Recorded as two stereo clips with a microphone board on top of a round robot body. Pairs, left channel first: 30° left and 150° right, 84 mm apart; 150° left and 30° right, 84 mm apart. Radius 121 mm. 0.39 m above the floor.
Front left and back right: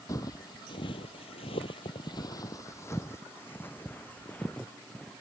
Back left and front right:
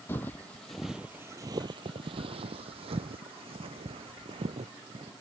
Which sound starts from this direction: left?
Footsteps, at 0.1 s.